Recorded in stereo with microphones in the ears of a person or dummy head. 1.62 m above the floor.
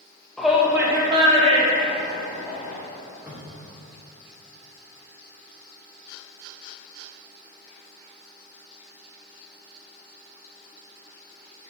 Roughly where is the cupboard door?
Centre.